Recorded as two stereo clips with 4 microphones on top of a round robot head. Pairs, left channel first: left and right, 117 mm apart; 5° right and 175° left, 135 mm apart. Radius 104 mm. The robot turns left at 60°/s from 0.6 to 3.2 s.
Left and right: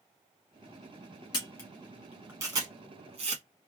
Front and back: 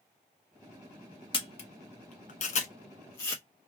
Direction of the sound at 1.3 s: 40° left.